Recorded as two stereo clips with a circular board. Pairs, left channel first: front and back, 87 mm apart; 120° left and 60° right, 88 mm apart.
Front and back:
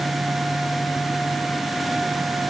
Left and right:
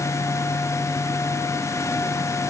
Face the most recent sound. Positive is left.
No sound to turn to.